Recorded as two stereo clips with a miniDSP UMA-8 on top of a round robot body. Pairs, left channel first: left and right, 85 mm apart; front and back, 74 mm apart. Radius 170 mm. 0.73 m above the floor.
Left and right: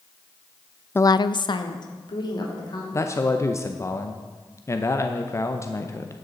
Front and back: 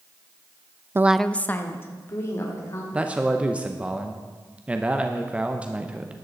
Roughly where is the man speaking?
Behind left.